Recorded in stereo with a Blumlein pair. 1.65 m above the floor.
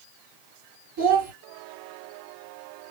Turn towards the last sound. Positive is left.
turn(degrees=-55)